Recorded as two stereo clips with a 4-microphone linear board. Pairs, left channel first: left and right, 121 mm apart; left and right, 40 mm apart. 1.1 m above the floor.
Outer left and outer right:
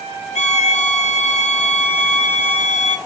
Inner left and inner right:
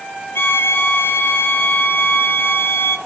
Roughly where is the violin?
Left.